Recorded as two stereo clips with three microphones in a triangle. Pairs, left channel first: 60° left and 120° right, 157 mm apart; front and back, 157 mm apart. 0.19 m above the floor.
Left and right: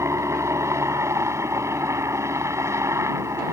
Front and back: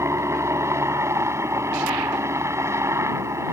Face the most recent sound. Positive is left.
turn(degrees=-150)